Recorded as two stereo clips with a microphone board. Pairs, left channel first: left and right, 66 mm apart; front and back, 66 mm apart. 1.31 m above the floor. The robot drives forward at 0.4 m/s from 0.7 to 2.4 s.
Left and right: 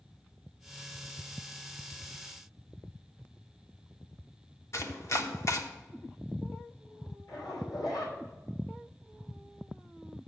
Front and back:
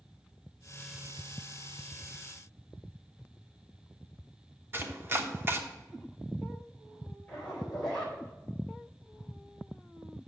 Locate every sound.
4.7 s chopping: 125° left, 0.9 m
7.3 s a zipper: 75° left, 3.5 m